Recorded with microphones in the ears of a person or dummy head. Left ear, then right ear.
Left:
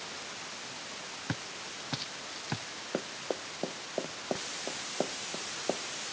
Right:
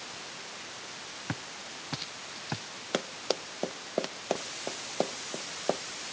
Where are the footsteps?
5° right (ahead or behind).